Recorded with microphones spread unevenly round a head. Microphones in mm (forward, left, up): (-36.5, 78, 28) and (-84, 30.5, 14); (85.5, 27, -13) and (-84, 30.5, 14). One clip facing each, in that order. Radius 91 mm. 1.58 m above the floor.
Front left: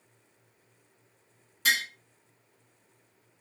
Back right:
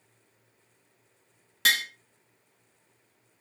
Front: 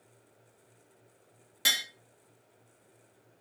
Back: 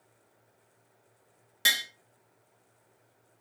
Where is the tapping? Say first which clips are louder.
Back right 1 dB, back 2 dB; 100° right, 0.5 m.